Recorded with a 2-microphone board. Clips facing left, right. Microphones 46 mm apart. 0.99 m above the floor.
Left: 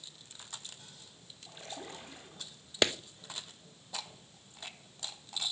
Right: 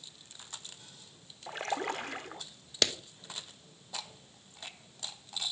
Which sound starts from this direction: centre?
A clap, at 2.8 s.